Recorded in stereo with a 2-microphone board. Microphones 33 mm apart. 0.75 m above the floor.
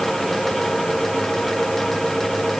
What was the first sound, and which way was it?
Only background noise.